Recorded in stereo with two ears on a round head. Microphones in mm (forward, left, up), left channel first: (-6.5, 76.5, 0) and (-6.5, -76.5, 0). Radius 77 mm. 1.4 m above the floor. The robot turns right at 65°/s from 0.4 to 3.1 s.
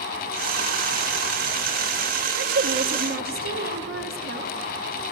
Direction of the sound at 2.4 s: 110° right.